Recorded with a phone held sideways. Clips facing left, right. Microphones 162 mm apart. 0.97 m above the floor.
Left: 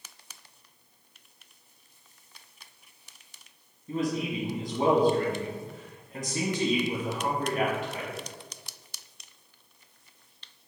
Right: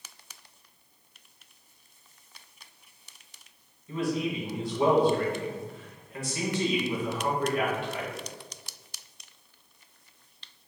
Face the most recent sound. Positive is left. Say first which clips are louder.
# even
turn(degrees=40)  # may be behind; listen again after turning